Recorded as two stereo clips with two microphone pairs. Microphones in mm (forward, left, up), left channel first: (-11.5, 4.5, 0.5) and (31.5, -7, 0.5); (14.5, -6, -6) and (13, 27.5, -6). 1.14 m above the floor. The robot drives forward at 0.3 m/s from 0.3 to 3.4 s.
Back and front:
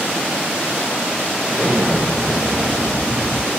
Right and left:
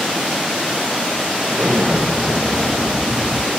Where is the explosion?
100° left, 3 m; by 3.5 s 110° left, 3 m.